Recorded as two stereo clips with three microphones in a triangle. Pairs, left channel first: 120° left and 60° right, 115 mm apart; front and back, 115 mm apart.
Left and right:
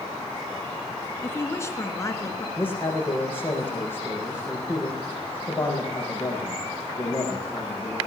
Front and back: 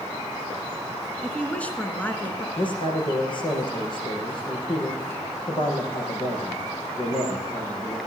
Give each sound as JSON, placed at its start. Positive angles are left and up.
{"t": 1.2, "sound": "a woman speaking", "azimuth_deg": 75, "distance_m": 1.7}
{"t": 2.6, "sound": "a man speaking", "azimuth_deg": 45, "distance_m": 6.5}